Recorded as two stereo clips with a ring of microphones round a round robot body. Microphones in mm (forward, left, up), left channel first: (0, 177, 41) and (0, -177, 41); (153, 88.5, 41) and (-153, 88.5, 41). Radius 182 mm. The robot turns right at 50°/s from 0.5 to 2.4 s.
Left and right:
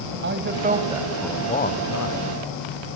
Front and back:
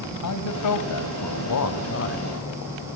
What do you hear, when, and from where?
0.2 s a man speaking: 30° right, 1.8 m; by 2.3 s 55° left, 1.8 m